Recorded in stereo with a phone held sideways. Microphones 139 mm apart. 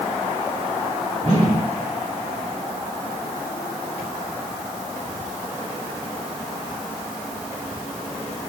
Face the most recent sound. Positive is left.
turn(degrees=-65)  # may be behind; listen again after turning